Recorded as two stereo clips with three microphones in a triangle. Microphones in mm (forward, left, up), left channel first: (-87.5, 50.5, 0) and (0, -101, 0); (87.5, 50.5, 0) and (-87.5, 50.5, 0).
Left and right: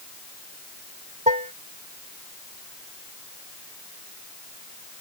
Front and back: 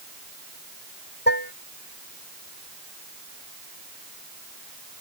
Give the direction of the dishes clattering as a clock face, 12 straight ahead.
12 o'clock.